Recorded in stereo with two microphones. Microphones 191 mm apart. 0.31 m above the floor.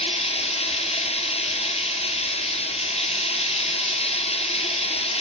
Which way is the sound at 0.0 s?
35° left (ahead or behind).